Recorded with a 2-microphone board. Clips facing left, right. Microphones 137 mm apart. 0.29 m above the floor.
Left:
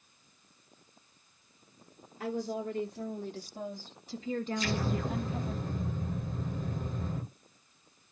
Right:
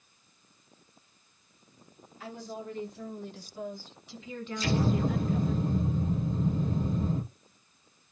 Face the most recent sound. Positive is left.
turn(degrees=-30)  # may be behind; listen again after turning